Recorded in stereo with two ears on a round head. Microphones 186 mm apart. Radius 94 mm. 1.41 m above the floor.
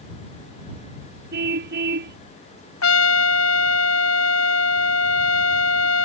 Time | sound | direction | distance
1.3 | a car horn | 55° right (ahead or behind) | ?
2.8 | a trumpet | 75° left (ahead or behind) | ?